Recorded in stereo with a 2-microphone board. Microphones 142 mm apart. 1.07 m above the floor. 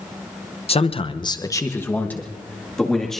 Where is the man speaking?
45° left (ahead or behind), 0.6 m; by 3.2 s 5° left (ahead or behind), 2 m.